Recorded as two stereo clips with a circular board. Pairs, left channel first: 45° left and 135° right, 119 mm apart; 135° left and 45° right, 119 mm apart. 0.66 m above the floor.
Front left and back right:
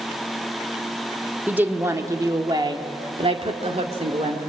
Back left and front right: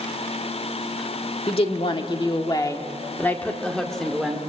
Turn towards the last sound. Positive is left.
turn(degrees=-130)